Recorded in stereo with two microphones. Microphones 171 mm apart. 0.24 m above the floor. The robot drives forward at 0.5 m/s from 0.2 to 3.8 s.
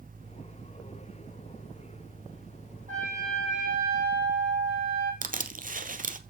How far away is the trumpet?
About 6 m.